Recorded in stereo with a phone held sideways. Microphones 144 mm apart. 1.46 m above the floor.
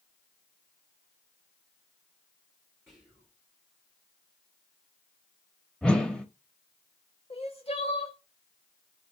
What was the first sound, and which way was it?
Whispering, 20° right (ahead or behind).